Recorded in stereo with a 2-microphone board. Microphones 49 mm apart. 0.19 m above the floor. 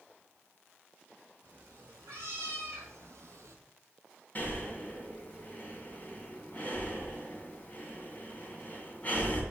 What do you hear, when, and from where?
1.4 s a cat meowing: 55° right (ahead or behind), 3.5 m; by 3.6 s 80° right, 1.1 m
4.3 s breathing: 35° left (ahead or behind), 1.9 m